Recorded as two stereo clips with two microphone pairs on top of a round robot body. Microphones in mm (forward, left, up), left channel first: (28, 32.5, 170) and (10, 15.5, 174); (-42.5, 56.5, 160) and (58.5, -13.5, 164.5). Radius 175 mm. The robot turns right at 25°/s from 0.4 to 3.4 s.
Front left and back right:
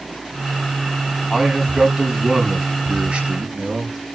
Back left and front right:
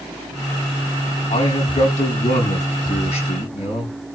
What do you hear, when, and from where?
1.3 s a man speaking: 125° left, 5.5 m; by 4.0 s straight behind, 5.5 m